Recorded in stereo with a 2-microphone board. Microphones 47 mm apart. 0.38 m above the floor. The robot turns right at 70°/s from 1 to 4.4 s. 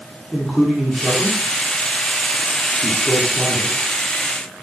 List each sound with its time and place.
0.3 s a man speaking: centre (ahead or behind), 4 m; by 3.8 s 10° right (ahead or behind), 4 m